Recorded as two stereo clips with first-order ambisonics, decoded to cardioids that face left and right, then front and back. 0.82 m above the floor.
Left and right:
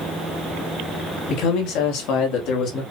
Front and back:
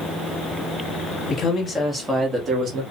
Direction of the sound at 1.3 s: 60° left.